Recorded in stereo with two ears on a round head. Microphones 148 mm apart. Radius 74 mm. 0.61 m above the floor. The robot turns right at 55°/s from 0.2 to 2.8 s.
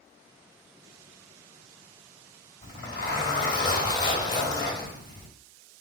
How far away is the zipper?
About 2.5 m.